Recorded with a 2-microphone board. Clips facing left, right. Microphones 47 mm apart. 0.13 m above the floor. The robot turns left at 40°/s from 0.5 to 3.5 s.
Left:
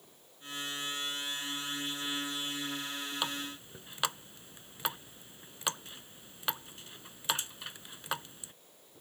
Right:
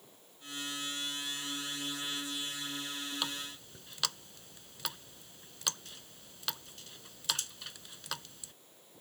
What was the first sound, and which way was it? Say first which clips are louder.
A running tap: left 3 dB; 15° left (ahead or behind).